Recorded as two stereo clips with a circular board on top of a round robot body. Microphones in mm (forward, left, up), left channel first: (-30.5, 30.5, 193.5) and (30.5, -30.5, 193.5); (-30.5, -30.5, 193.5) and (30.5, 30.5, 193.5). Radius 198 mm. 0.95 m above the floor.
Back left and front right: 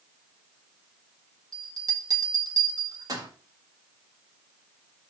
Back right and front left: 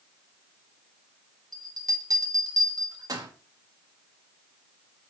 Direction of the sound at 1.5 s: Straight ahead.